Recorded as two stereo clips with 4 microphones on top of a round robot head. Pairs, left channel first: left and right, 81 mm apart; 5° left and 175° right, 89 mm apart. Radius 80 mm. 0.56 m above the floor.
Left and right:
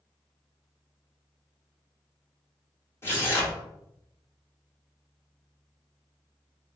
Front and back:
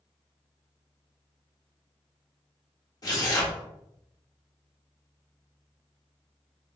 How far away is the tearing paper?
About 1.7 m.